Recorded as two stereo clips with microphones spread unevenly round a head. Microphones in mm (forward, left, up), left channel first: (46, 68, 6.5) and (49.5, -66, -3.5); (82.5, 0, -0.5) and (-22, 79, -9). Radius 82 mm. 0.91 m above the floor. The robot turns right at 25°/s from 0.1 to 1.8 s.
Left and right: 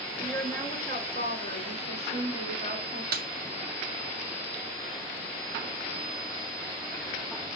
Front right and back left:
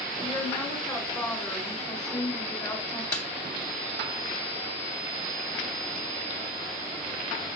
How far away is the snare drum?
About 1.1 m.